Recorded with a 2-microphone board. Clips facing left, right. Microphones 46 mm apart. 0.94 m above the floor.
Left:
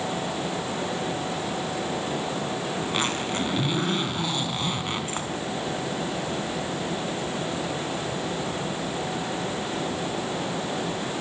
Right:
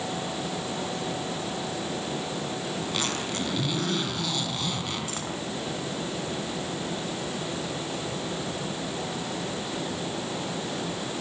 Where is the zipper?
25° left (ahead or behind), 4 m.